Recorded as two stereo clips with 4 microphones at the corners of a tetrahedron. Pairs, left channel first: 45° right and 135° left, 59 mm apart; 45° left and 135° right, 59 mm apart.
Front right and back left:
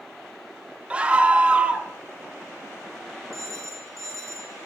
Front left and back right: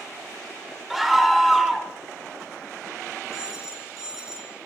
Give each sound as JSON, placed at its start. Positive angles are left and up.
{"t": 0.9, "sound": "a scream", "azimuth_deg": 145, "distance_m": 0.8}
{"t": 3.3, "sound": "a phone ringing", "azimuth_deg": 145, "distance_m": 1.2}